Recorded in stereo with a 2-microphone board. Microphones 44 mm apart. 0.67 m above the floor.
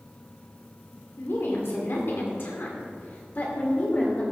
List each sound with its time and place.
1.2 s a woman speaking: 65° left (ahead or behind), 2.5 m; by 4.2 s 40° left (ahead or behind), 2.5 m